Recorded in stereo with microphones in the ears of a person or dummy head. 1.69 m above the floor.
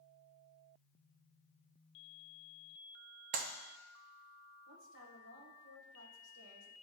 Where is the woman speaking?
80° right, 1.4 m.